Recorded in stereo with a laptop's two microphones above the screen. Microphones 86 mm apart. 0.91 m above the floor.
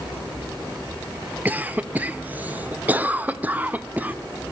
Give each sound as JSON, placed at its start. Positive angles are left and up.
{"t": 1.4, "sound": "a cough", "side_deg": -20, "distance_m": 0.6}